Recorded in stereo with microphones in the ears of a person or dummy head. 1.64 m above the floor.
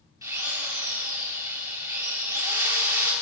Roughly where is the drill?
Centre.